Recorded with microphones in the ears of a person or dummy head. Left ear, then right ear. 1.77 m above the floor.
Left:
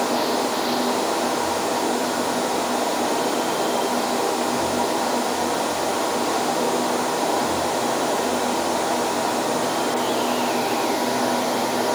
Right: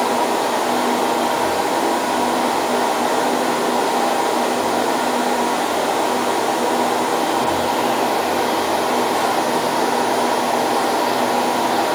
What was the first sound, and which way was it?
Only background noise.